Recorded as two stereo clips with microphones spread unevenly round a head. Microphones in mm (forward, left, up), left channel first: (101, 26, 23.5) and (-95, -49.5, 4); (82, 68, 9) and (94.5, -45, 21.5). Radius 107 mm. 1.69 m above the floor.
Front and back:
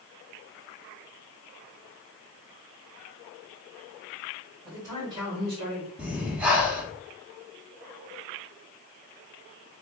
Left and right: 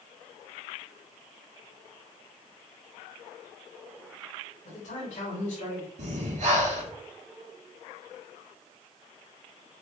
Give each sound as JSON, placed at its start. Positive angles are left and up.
{"t": 4.7, "sound": "a man speaking", "azimuth_deg": 125, "distance_m": 2.0}
{"t": 6.0, "sound": "breathing", "azimuth_deg": -75, "distance_m": 1.0}